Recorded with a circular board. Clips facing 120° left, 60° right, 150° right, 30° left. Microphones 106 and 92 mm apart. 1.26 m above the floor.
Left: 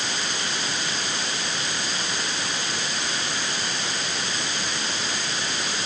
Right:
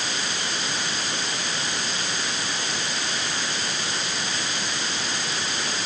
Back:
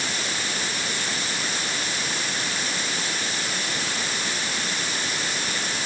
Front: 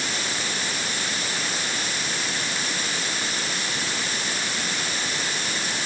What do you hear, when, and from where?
Only background noise.